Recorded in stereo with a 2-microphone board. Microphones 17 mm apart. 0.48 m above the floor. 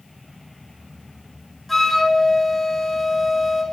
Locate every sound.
1.7 s a flute: 15° left (ahead or behind), 3.5 m